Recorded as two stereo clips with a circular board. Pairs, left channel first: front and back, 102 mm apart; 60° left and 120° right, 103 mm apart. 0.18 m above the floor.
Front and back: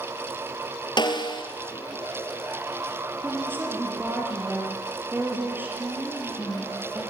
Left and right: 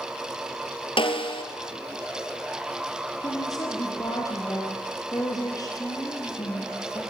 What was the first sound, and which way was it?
A snare drum, 35° left.